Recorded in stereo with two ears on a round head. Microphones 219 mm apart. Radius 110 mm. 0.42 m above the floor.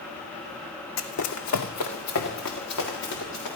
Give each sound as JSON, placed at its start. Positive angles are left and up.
{"t": 1.0, "sound": "running footsteps", "side_deg": 60, "distance_m": 1.1}